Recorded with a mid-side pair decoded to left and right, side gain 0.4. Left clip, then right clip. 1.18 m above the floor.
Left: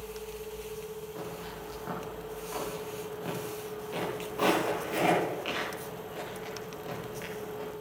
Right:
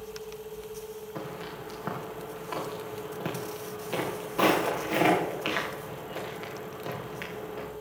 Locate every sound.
1.1 s footsteps: 60° right, 8 m